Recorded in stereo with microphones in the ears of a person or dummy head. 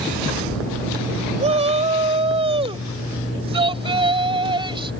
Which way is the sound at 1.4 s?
25° right (ahead or behind).